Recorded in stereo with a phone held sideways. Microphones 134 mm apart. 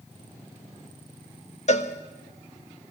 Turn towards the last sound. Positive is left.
turn(degrees=55)  # may be behind; listen again after turning